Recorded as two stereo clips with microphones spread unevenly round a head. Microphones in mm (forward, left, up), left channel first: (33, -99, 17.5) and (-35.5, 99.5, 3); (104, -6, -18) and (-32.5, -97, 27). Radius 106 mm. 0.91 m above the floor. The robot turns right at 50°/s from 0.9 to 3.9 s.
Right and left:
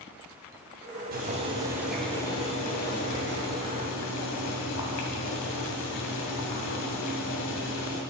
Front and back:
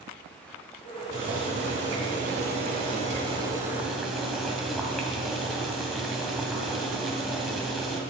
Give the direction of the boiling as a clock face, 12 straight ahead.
7 o'clock.